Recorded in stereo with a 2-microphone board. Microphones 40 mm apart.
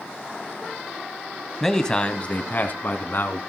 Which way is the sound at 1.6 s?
5° left (ahead or behind).